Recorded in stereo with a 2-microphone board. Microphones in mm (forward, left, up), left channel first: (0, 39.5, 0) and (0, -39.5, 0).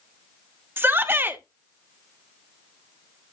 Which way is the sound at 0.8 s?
25° right (ahead or behind).